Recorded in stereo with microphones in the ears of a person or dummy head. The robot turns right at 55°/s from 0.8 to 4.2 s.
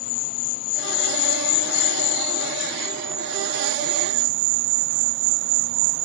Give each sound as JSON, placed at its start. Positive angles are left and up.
{"t": 0.0, "sound": "an insect", "azimuth_deg": 50}